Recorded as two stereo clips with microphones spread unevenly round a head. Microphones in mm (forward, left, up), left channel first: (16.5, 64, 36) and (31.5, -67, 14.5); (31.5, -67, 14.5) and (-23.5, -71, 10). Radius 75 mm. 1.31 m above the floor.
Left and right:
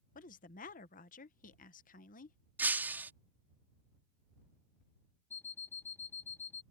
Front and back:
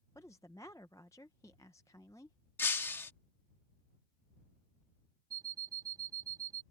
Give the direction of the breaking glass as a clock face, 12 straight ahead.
12 o'clock.